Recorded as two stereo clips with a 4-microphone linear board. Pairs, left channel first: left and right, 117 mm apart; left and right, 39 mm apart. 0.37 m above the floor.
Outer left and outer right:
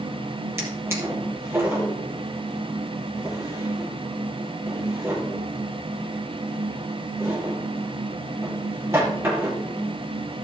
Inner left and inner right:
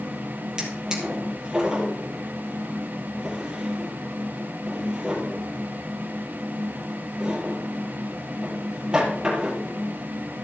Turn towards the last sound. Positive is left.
turn(degrees=-20)  # may be behind; listen again after turning